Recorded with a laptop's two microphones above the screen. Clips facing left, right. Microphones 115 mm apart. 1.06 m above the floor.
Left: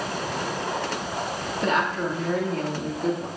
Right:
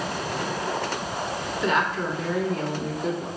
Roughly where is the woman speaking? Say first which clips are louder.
Even; left.